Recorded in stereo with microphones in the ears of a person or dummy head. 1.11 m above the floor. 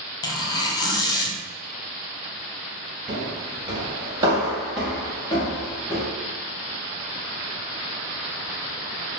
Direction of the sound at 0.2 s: 20° left (ahead or behind).